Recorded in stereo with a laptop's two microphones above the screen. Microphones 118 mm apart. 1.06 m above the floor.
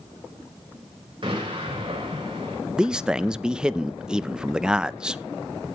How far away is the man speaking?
About 0.5 m.